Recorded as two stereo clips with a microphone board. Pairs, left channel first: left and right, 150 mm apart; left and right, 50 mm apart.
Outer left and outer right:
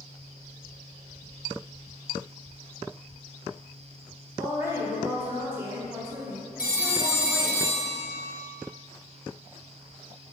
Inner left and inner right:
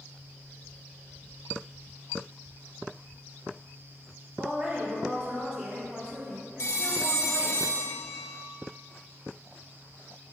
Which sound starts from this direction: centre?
A woman speaking, at 4.4 s.